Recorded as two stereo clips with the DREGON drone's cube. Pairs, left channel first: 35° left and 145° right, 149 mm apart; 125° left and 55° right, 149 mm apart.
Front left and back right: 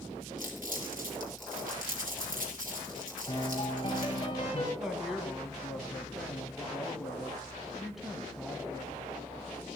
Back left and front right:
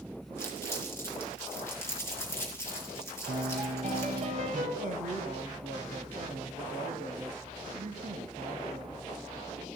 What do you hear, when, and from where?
0.4 s crumpling: 165° right, 3.5 m
3.3 s a piano: 20° right, 3 m
4.8 s a woman speaking: 60° right, 1.6 m